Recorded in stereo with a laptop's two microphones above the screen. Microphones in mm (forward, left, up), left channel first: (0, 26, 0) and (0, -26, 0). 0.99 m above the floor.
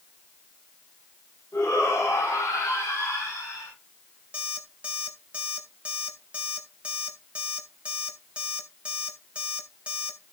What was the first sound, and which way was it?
A shout, 65° left (ahead or behind).